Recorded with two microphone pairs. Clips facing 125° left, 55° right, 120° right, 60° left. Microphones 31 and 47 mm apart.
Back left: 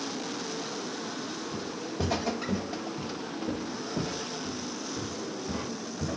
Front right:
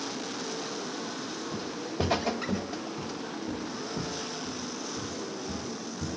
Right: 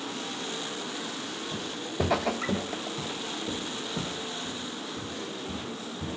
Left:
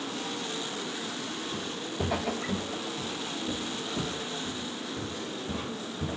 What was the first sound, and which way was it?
Footsteps, 105° right.